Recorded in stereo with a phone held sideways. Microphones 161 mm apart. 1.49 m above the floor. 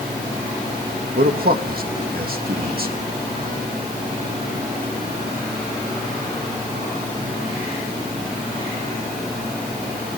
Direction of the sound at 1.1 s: 65° right (ahead or behind).